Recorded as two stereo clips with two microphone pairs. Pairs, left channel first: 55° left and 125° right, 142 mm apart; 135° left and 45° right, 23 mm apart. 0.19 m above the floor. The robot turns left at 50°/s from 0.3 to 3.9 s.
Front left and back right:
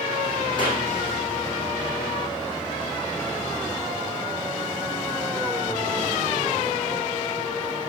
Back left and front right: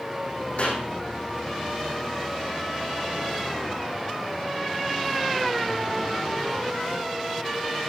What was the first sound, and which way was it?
A clap, 110° left.